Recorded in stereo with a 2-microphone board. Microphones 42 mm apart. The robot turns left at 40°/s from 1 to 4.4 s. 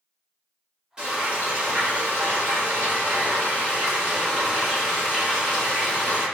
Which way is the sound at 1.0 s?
25° right.